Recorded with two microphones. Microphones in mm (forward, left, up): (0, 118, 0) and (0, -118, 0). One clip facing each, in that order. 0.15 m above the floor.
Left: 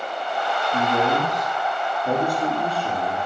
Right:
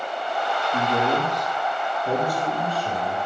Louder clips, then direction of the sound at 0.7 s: Left 1 dB; 15° left (ahead or behind).